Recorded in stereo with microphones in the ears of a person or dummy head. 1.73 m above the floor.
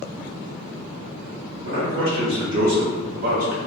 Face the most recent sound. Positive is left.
turn(degrees=-55)  # may be behind; listen again after turning